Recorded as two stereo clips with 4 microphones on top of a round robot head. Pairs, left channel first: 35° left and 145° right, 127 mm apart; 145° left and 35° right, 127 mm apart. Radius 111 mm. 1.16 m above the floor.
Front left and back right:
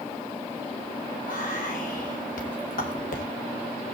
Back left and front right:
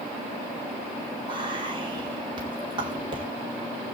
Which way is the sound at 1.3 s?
20° left.